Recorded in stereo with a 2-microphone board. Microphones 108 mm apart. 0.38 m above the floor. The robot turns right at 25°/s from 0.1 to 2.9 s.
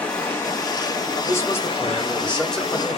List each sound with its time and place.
0.0 s running water: 15° left, 1.0 m; by 3.0 s 85° left, 1.0 m
1.2 s a man speaking: 135° left, 1.0 m; by 3.0 s straight behind, 1.0 m